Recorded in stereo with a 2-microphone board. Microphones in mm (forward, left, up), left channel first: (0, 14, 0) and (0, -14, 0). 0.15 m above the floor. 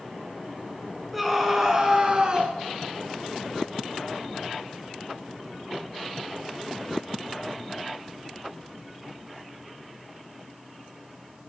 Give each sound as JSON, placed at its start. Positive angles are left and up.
{"t": 1.1, "sound": "a scream", "side_deg": 0, "distance_m": 1.7}